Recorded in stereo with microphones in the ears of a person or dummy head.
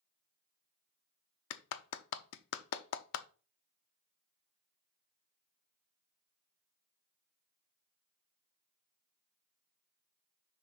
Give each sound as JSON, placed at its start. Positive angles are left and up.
{"t": 1.5, "sound": "a clap", "side_deg": 55, "distance_m": 0.6}